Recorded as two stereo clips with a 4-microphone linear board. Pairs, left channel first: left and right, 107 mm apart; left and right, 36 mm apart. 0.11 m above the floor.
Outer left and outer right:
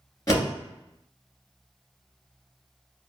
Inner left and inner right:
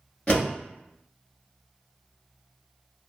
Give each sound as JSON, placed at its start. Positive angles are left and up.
{"t": 0.3, "sound": "a door slam", "side_deg": 30, "distance_m": 1.3}